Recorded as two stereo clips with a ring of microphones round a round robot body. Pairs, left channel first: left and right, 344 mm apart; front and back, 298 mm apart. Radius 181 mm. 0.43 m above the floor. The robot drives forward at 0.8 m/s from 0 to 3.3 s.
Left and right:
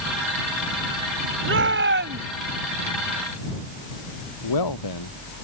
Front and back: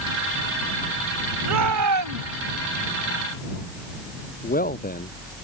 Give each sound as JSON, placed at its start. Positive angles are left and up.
{"t": 1.4, "sound": "a shout", "azimuth_deg": -145}
{"t": 4.4, "sound": "a man speaking", "azimuth_deg": 60}